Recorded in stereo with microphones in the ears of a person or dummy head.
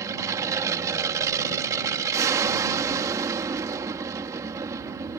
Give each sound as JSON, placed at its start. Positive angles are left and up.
{"t": 0.0, "sound": "an aircraft", "side_deg": -20}